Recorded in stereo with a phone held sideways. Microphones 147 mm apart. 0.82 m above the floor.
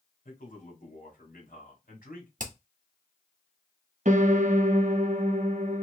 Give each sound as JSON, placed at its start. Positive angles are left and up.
{"t": 0.2, "sound": "a man speaking", "side_deg": 65, "distance_m": 1.9}
{"t": 2.4, "sound": "hammering", "side_deg": -60, "distance_m": 1.4}
{"t": 4.0, "sound": "a piano", "side_deg": -55, "distance_m": 0.7}